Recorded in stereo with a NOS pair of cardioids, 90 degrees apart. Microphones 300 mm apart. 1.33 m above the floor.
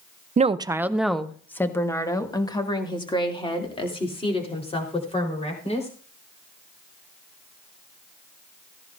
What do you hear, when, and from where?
0.4 s a woman speaking: 25° right, 0.6 m; by 5.9 s 20° left, 4.5 m